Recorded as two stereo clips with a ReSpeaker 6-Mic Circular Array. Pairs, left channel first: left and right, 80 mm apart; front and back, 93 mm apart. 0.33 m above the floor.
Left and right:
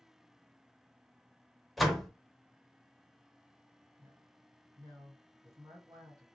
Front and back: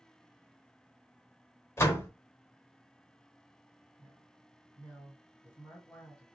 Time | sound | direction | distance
1.8 | a door slam | straight ahead | 0.6 m
4.0 | a woman speaking | 65° right | 2 m